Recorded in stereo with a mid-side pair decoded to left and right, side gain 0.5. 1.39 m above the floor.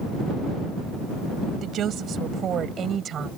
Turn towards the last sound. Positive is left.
turn(degrees=-50)